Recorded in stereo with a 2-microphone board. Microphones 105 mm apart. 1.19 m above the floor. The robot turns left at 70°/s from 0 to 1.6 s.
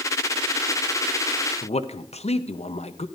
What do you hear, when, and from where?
1.6 s a man speaking: 85° left, 0.8 m